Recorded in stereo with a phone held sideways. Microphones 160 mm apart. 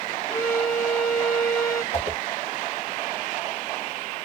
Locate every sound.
0.3 s a violin: 20° left (ahead or behind), 1.9 m
1.9 s a whoosh: 40° left (ahead or behind), 1.2 m